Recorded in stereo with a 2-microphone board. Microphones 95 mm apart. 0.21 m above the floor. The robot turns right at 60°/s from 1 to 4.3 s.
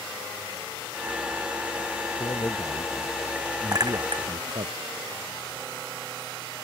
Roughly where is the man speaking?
Behind left.